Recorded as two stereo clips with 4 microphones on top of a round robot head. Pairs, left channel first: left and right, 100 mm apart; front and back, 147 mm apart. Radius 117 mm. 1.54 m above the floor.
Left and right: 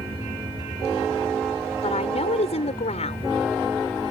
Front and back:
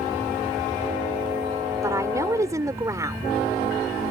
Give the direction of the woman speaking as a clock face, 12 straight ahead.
8 o'clock.